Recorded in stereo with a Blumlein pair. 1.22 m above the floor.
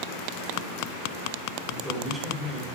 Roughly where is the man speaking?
Ahead.